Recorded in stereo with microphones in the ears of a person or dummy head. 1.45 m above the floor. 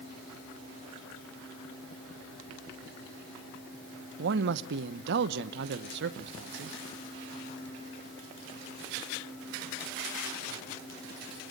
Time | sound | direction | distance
4.2 | a man speaking | 65° right (ahead or behind) | 1.0 m